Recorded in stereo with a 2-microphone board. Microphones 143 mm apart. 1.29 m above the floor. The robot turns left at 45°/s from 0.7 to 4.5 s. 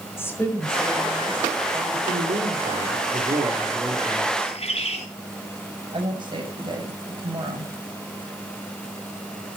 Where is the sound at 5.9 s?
35° right (ahead or behind), 6.5 m.